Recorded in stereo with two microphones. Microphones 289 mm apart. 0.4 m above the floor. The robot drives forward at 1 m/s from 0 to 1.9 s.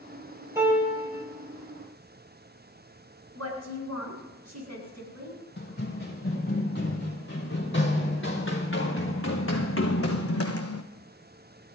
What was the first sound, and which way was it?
A piano, 10° right (ahead or behind).